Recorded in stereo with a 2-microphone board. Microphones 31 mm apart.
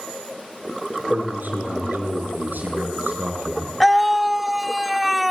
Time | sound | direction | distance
1.1 | a man speaking | 65° right (ahead or behind) | 6.5 m
3.8 | a scream | 5° right (ahead or behind) | 0.8 m